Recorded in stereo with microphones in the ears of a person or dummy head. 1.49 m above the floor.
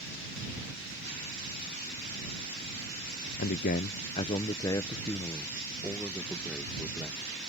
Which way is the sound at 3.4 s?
55° left (ahead or behind).